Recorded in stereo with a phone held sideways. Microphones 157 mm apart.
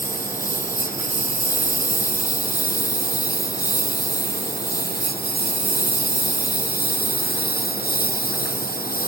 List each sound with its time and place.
0.0 s a lawn mower: 60° left (ahead or behind); by 9.1 s 75° left (ahead or behind)